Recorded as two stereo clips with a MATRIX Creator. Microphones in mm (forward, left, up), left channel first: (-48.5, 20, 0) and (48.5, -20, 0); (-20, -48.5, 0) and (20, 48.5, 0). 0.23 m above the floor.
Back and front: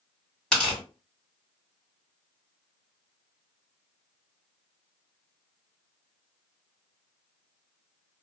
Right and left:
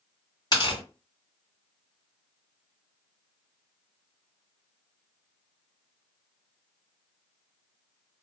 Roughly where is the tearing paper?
Behind right.